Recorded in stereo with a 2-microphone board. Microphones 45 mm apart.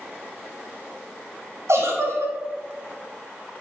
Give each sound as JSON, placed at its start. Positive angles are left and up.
{"t": 1.7, "sound": "a giggle", "side_deg": -75, "distance_m": 1.4}